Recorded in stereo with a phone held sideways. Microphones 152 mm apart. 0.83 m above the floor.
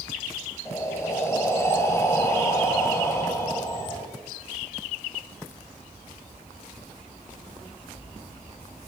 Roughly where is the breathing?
Centre.